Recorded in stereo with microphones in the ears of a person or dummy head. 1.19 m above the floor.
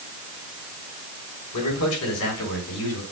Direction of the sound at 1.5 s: 80° left.